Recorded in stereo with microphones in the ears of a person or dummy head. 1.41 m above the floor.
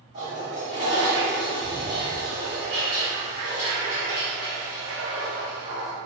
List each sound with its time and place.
0.1 s a toilet flushing: 30° right (ahead or behind), 1.2 m